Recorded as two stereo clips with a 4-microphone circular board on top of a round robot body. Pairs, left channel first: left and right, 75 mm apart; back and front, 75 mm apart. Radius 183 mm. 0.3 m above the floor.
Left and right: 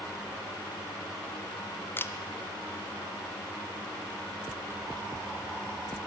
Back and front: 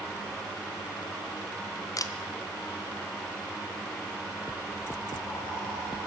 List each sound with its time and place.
2.0 s a camera shutter: 145° left, 0.9 m